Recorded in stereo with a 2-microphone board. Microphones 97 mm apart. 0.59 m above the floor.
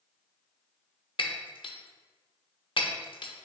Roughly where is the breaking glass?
Left.